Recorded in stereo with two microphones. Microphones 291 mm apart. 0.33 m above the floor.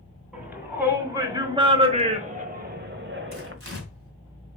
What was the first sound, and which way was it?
A shout, 5° right (ahead or behind).